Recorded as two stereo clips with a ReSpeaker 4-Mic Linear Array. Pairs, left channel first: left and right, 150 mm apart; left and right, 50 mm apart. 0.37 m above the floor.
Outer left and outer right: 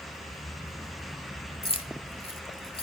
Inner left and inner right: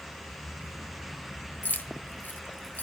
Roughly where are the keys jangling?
Left.